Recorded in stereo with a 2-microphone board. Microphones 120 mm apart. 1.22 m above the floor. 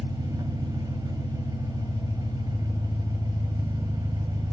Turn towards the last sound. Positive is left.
turn(degrees=-30)  # may be behind; listen again after turning